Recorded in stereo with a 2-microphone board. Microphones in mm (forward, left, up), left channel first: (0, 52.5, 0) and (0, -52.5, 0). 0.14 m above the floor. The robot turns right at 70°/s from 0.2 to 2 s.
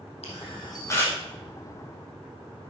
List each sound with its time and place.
0.2 s a camera shutter: 70° left (ahead or behind), 4 m; by 1.2 s 10° left (ahead or behind), 4 m